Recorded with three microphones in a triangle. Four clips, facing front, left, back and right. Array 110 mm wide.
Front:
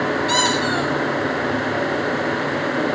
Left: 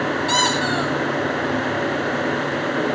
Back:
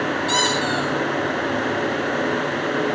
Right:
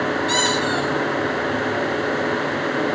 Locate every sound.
0.3 s a squeak: 95° left, 4 m